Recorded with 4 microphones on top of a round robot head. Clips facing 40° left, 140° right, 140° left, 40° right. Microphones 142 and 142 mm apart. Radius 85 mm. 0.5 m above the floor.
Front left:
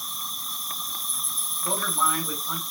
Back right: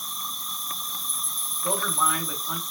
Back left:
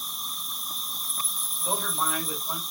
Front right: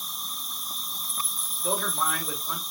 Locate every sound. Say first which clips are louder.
0.0 s an insect: back right 1 dB, even; 45° right, 1.4 m
1.6 s a man speaking: back right 1 dB, front right 2 dB; 55° right, 1.6 m